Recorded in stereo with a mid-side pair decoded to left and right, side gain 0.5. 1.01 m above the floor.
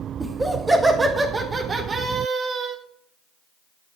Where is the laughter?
15° right, 4 m; by 2.8 s 55° right, 3.5 m.